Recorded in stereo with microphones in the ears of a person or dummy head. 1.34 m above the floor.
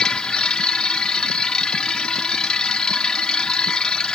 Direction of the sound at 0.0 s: 5° left (ahead or behind).